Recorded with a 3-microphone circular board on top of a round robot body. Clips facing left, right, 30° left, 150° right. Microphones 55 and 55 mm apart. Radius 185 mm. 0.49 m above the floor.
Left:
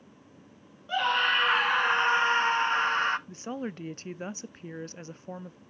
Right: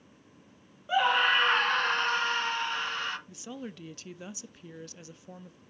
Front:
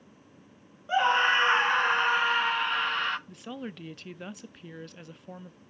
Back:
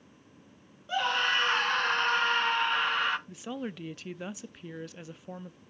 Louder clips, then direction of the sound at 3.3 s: Left 6 dB, back 2 dB; 125° left.